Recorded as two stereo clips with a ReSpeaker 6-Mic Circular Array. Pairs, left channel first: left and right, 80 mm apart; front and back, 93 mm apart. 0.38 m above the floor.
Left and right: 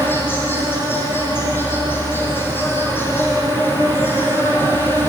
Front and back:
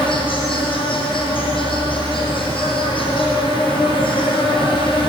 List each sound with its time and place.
0.0 s an insect: 25° left, 6 m